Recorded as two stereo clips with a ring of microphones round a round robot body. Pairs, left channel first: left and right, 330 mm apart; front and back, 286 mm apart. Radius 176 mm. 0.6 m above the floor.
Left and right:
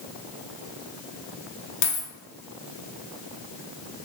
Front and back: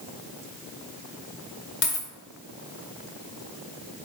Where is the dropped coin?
50° left, 0.9 m.